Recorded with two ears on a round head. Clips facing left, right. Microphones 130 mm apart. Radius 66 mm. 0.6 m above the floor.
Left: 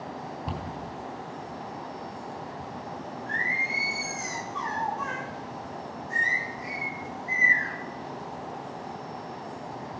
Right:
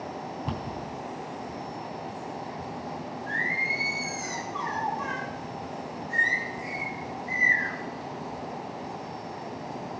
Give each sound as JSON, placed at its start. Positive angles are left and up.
{"t": 0.5, "sound": "a cupboard door", "side_deg": 5, "distance_m": 3.0}
{"t": 3.3, "sound": "singing", "side_deg": 40, "distance_m": 7.5}